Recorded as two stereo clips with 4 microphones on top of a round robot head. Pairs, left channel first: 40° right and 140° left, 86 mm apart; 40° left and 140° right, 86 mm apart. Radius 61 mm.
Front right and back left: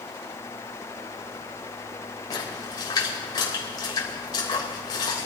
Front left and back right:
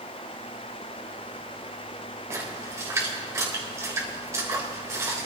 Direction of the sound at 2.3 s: 80° right.